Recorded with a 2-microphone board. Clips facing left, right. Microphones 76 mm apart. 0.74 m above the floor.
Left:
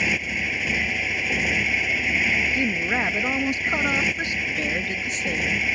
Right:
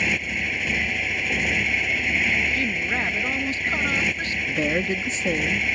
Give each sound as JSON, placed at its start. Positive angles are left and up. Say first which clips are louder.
{"t": 0.0, "sound": "a motorcycle", "louder": "even", "side_deg": 5}
{"t": 2.5, "sound": "a woman speaking", "louder": "left 2 dB", "side_deg": 20}
{"t": 4.5, "sound": "a woman speaking", "louder": "right 3 dB", "side_deg": -30}